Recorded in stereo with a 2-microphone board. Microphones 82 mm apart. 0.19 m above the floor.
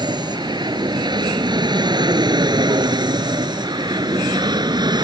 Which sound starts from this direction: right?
An aircraft, at 0.0 s.